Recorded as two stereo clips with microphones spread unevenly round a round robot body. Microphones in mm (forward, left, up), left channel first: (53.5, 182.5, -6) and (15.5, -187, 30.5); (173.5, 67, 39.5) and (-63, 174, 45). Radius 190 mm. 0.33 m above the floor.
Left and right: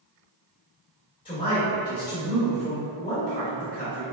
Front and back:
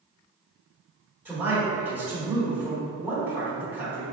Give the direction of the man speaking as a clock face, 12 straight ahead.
9 o'clock.